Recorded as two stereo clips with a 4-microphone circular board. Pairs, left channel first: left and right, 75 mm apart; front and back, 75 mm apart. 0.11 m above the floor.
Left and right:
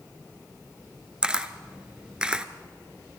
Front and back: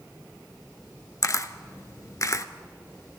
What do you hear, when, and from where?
1.2 s a camera shutter: 15° right, 0.7 m